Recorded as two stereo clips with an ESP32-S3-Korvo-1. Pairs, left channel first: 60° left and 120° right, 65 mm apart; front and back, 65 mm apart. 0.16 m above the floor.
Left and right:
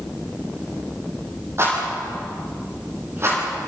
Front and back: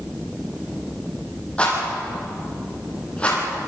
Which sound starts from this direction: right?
A rattle, at 1.6 s.